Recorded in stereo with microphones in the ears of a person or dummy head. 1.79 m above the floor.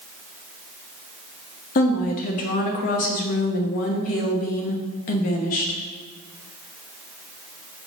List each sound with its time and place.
1.8 s a woman speaking: 45° left (ahead or behind), 1.1 m